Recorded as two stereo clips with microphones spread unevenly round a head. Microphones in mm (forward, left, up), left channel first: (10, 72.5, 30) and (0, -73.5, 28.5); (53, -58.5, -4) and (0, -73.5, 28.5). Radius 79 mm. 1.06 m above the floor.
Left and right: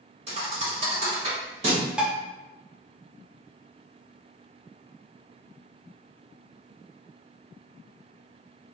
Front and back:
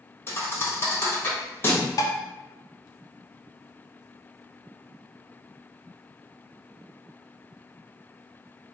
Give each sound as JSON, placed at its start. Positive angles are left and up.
{"t": 0.3, "sound": "a thud", "azimuth_deg": -50, "distance_m": 1.2}
{"t": 2.0, "sound": "dishes clattering", "azimuth_deg": -10, "distance_m": 0.5}